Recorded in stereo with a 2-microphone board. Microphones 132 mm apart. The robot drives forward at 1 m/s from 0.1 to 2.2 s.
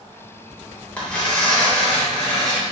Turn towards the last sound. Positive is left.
turn(degrees=5)  # may be behind; listen again after turning